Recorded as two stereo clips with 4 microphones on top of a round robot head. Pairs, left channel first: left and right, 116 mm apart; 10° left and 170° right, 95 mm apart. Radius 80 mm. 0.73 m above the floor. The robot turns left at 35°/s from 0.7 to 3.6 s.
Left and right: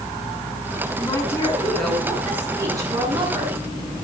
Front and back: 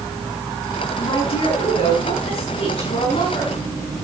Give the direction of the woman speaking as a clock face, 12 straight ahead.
11 o'clock.